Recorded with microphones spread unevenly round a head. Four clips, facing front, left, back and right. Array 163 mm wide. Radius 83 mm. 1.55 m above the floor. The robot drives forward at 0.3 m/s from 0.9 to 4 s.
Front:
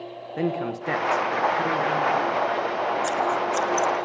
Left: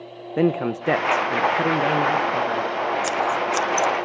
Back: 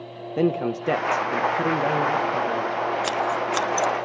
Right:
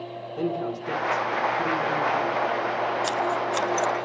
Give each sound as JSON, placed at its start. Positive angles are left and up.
{"t": 0.4, "sound": "a man speaking", "azimuth_deg": 105, "distance_m": 1.1}
{"t": 3.0, "sound": "scissors", "azimuth_deg": 130, "distance_m": 1.0}